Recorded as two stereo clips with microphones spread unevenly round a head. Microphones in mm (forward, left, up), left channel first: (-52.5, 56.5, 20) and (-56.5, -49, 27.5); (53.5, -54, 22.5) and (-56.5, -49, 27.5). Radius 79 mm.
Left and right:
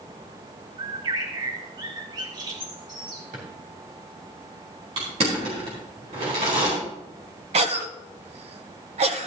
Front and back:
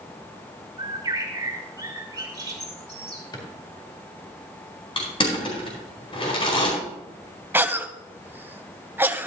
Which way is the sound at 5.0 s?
40° right.